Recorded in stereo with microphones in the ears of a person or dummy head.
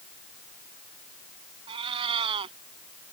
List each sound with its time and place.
1.7 s a cat meowing: 30° right (ahead or behind)